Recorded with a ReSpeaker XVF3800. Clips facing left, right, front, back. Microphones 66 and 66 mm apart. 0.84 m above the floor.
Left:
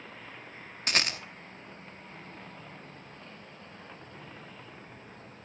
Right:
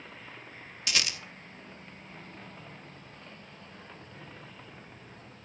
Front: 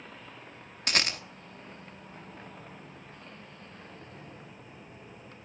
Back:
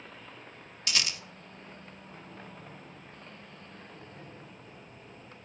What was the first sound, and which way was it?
A rattle, 40° left.